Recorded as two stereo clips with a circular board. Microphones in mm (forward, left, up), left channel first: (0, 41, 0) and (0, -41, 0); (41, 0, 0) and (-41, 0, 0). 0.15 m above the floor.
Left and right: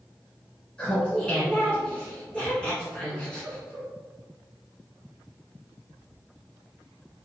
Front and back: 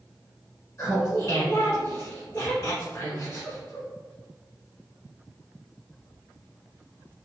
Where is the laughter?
20° left, 1.3 m.